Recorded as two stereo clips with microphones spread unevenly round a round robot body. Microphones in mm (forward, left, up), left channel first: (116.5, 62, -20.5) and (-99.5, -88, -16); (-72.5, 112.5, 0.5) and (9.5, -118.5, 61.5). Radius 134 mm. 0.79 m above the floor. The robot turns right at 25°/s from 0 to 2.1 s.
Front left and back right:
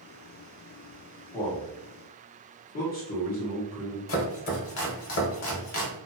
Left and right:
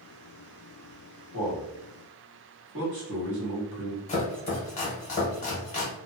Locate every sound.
1.3 s a man speaking: 40° right, 1.4 m; by 4.0 s 20° right, 1.4 m
4.1 s chopping: 40° left, 0.7 m